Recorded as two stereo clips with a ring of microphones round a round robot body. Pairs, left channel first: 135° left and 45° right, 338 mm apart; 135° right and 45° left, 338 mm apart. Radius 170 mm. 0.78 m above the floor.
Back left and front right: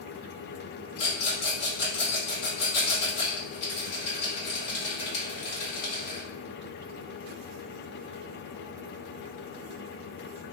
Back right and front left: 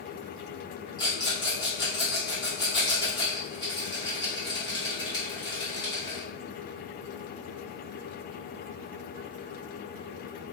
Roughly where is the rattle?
Behind left.